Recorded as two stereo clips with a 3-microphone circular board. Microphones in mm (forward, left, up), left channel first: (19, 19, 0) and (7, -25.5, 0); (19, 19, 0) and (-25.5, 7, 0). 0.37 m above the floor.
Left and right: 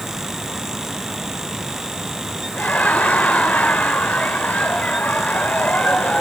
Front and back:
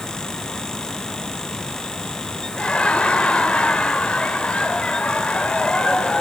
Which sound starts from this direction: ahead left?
Laughter, at 2.6 s.